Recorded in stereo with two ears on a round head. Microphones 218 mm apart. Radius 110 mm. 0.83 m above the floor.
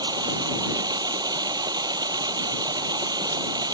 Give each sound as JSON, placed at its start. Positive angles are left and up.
{"t": 0.0, "sound": "running water", "side_deg": -15}